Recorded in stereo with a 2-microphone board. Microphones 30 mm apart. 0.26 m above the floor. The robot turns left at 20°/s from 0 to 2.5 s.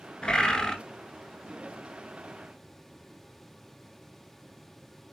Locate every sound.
0.2 s a bird: 35° left (ahead or behind), 0.7 m; by 0.8 s 20° left (ahead or behind), 0.7 m